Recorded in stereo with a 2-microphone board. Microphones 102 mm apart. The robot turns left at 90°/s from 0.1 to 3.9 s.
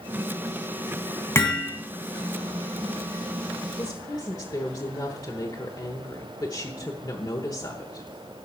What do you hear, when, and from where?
1.4 s hammering: 30° left, 2.5 m; by 1.7 s 5° right, 2.5 m
3.8 s a woman speaking: 45° left (ahead or behind), 1.1 m; by 8.1 s 40° left (ahead or behind), 1.1 m